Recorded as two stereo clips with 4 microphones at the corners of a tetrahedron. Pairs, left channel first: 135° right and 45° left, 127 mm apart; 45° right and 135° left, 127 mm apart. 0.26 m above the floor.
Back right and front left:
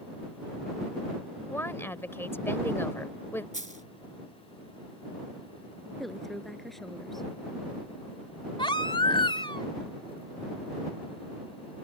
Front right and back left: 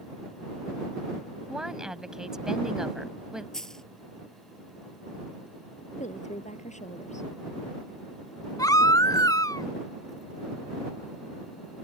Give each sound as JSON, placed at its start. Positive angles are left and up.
{"t": 1.5, "sound": "a woman speaking", "azimuth_deg": -150}
{"t": 3.5, "sound": "a dropped coin", "azimuth_deg": 40}
{"t": 6.0, "sound": "a woman speaking", "azimuth_deg": -45}
{"t": 8.6, "sound": "a baby crying", "azimuth_deg": -100}